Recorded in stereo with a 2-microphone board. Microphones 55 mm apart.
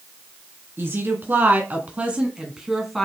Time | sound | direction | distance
0.8 | a woman speaking | 40° right (ahead or behind) | 2 m